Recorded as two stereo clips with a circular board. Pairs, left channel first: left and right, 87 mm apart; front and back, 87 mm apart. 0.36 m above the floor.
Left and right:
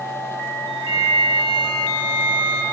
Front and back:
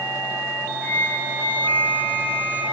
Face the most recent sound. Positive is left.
turn(degrees=-65)